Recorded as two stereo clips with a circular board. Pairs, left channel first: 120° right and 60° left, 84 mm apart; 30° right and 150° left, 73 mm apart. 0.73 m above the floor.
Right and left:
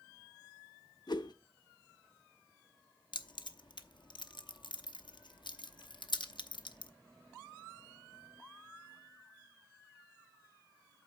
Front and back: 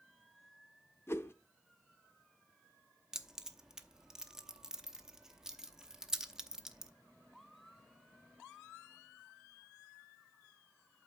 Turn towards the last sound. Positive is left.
turn(degrees=-130)